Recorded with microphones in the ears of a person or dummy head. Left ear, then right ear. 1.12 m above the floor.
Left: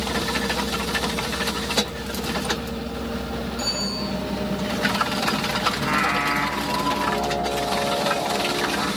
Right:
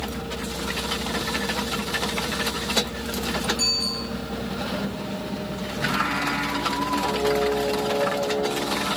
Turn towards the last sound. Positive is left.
turn(degrees=55)  # may be behind; listen again after turning